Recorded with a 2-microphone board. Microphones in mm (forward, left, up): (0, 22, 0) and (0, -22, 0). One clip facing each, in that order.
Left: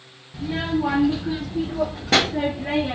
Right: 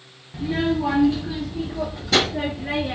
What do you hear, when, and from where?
0.3 s a child speaking: 15° right (ahead or behind), 0.6 m; by 3.0 s 55° left (ahead or behind), 1.5 m